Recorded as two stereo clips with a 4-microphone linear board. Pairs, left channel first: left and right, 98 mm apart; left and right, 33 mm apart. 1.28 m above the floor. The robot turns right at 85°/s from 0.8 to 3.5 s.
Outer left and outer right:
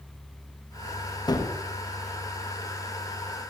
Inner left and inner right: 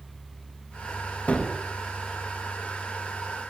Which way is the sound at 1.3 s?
40° left (ahead or behind).